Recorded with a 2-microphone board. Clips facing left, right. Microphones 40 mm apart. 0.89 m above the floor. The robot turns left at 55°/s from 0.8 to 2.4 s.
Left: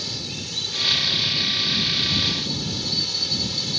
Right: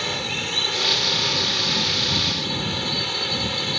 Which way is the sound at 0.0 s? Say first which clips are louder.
Right 7 dB; 50° right.